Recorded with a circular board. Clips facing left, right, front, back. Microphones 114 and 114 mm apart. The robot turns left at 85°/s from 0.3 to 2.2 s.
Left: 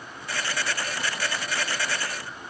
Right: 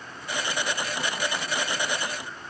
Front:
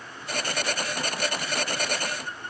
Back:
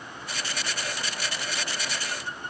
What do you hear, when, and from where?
Only background noise.